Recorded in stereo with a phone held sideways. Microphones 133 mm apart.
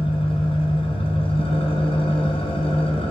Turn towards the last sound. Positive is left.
turn(degrees=45)  # may be behind; listen again after turning